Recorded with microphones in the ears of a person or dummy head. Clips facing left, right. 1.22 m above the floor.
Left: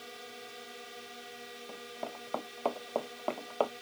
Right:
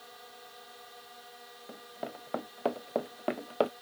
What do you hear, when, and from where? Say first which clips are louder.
0.0 s a drone: left 4 dB; 35° left (ahead or behind)
1.7 s running footsteps: right 1 dB; 10° right (ahead or behind); by 3.7 s 25° right (ahead or behind)